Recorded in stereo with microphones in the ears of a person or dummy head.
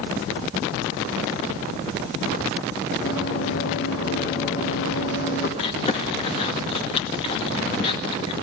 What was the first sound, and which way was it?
Running footsteps, 65° left (ahead or behind).